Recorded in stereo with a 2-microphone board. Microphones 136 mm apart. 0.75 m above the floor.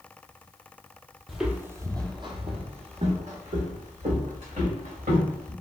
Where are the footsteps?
Centre (ahead or behind), 0.8 m; by 5.5 s 75° right (ahead or behind), 2.5 m.